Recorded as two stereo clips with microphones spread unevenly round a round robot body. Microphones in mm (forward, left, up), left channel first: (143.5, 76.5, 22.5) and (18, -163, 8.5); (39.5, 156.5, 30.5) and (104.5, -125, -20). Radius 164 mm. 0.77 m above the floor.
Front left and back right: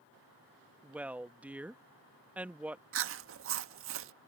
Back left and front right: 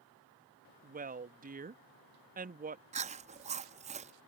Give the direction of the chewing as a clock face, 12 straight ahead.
4 o'clock.